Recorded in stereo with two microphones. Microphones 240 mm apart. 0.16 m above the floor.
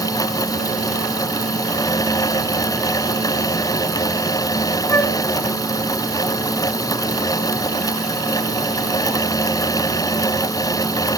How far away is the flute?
About 0.9 m.